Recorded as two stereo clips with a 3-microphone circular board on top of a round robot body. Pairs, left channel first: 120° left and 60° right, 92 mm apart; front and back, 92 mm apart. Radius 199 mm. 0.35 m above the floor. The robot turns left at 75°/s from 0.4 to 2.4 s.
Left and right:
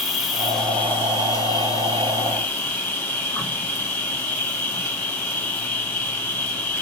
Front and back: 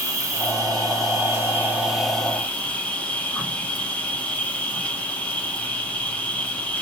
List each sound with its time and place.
0.0 s an insect: 150° right, 1.5 m; by 6.8 s 60° left, 1.5 m